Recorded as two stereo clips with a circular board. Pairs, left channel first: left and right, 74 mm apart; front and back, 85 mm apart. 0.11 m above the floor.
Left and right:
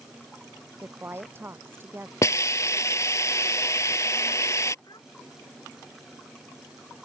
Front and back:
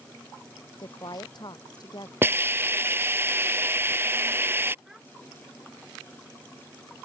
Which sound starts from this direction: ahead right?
A woman speaking, at 0.8 s.